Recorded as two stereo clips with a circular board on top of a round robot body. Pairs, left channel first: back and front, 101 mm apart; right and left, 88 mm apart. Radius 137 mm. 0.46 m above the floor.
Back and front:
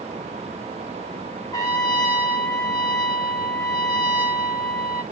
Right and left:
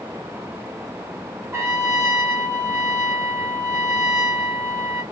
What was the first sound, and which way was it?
A trumpet, 145° left.